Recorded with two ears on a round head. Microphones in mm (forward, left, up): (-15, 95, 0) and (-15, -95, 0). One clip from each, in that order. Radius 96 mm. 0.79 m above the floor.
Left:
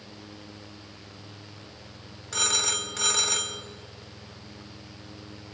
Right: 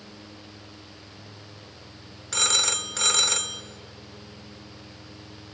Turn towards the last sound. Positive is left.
turn(degrees=-25)  # may be behind; listen again after turning